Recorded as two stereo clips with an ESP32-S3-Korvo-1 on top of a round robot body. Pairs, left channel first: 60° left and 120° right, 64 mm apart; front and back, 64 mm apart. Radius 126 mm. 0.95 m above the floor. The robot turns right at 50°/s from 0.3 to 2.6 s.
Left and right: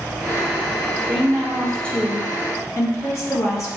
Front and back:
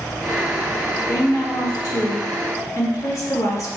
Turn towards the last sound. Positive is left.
turn(degrees=25)